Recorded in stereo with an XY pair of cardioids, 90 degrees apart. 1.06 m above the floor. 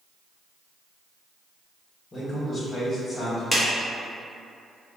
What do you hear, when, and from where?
2.1 s a man speaking: 40° left, 1.3 m
3.5 s a clap: 10° left, 1.0 m